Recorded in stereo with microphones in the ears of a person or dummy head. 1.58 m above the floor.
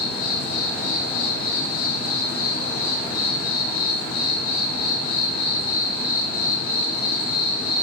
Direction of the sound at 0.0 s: 50° left (ahead or behind).